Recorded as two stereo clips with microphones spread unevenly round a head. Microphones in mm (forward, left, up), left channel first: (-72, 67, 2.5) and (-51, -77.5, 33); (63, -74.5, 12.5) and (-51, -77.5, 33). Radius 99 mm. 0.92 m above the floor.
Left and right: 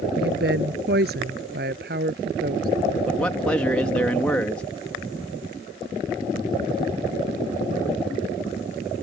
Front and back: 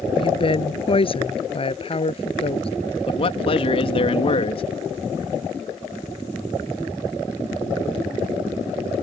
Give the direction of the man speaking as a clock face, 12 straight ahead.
11 o'clock.